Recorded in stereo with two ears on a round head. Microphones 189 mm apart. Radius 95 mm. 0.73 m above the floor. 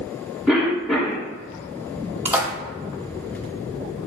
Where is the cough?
Centre (ahead or behind), 1.2 m.